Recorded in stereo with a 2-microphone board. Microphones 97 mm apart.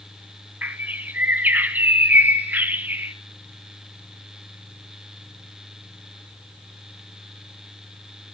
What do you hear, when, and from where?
0.6 s a bird: 20° right (ahead or behind), 0.8 m